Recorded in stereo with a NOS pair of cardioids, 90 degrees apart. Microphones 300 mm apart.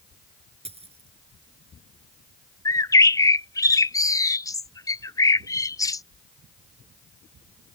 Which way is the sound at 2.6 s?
10° left.